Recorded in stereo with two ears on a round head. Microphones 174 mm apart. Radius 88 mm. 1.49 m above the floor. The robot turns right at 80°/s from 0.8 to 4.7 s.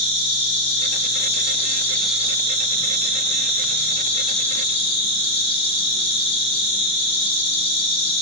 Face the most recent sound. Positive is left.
turn(degrees=30)